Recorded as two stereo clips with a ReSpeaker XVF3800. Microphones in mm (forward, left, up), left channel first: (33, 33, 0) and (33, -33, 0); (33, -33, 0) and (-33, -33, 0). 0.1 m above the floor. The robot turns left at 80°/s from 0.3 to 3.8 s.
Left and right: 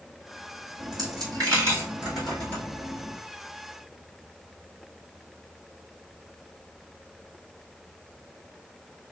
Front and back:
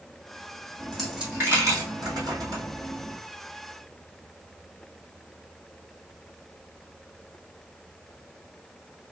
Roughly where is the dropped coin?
Right.